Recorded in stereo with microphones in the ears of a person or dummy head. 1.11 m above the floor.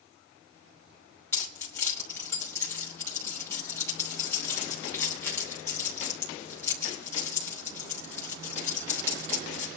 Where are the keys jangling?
20° left (ahead or behind), 3 m.